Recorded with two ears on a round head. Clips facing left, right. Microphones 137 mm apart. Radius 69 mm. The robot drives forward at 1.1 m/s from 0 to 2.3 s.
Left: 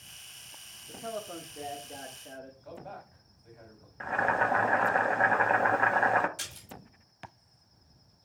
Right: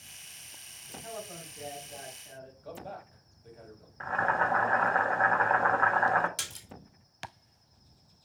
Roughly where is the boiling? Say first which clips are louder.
Left 1 dB; left.